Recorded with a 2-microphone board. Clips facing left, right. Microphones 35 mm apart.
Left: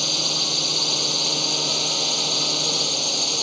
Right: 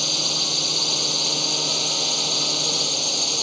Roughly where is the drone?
Centre.